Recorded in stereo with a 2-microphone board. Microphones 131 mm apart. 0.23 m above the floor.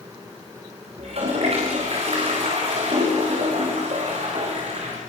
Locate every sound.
1.0 s a toilet flushing: 55° right (ahead or behind), 9.5 m